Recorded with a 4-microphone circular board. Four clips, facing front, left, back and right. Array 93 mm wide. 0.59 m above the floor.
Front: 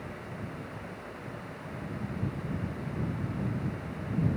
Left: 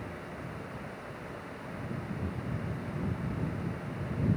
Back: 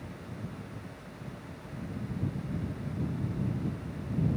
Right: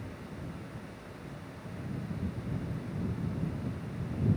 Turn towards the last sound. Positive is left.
No sound to turn to.